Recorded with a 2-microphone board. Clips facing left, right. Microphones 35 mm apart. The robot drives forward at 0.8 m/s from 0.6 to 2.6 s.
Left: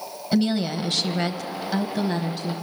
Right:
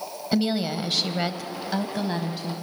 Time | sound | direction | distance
0.3 | a woman speaking | 5° right (ahead or behind) | 0.9 m